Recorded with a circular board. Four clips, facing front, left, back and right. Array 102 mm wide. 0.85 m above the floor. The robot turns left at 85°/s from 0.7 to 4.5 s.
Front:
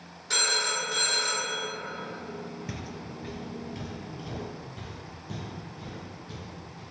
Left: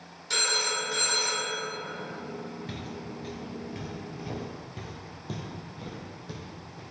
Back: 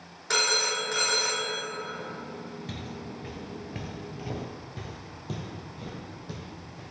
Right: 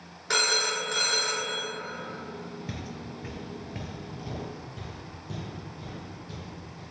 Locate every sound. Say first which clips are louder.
0.3 s a phone ringing: right 3 dB, back 2 dB; 125° right, 1.2 m; by 1.6 s 165° left, 1.2 m
2.7 s footsteps: even, even; 15° right, 0.8 m; by 6.8 s 125° left, 2.5 m